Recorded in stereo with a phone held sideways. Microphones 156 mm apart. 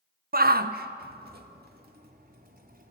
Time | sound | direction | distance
0.3 | a shout | 70° right (ahead or behind) | 0.9 m